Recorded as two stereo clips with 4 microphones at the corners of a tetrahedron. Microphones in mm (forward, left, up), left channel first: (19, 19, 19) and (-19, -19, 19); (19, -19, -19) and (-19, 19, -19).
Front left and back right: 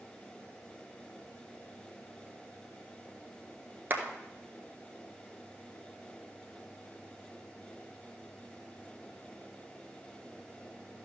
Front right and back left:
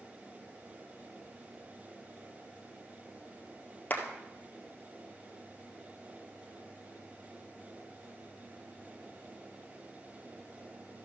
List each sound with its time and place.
3.9 s a clap: 95° right, 1.5 m